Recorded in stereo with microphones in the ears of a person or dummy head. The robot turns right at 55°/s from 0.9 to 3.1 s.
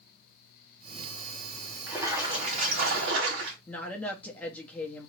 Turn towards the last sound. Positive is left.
turn(degrees=10)  # may be behind; listen again after turning